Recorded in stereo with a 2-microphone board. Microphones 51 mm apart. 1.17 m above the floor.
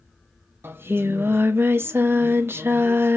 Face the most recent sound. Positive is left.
turn(degrees=-50)  # may be behind; listen again after turning